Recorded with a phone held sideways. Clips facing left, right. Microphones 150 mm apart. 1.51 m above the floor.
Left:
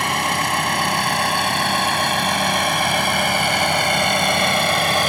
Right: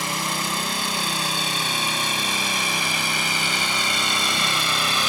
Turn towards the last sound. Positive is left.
turn(degrees=50)  # may be behind; listen again after turning